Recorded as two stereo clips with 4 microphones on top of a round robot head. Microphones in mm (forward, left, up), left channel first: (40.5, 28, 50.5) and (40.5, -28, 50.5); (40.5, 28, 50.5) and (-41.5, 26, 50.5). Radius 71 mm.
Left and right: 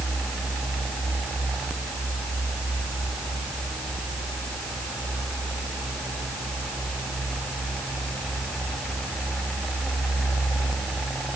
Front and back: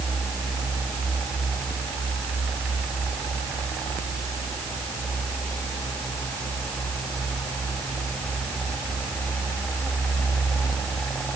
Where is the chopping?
I don't hear chopping.